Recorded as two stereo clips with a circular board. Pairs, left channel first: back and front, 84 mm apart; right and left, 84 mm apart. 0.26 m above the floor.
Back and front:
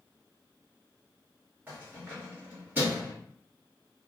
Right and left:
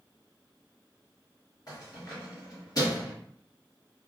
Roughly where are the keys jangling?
Ahead right.